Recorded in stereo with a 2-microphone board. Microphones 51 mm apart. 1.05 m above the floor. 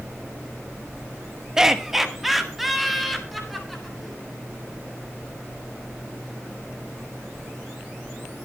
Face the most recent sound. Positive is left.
turn(degrees=5)  # may be behind; listen again after turning